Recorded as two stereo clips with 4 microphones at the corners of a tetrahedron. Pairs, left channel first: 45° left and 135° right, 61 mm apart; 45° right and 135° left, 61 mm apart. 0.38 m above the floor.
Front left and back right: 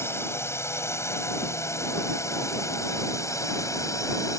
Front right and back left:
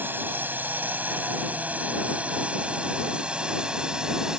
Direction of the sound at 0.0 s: 85° left.